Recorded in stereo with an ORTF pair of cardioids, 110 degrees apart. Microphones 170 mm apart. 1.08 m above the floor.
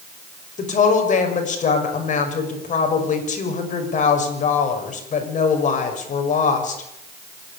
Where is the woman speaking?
45° left, 6 m.